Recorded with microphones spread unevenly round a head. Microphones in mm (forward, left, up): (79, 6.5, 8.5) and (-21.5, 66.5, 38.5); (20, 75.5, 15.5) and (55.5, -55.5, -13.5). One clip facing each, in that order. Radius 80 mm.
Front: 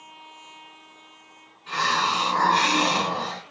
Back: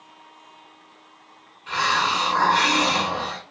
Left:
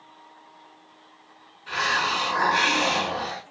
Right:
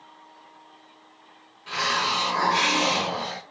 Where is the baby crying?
No baby crying in this recording.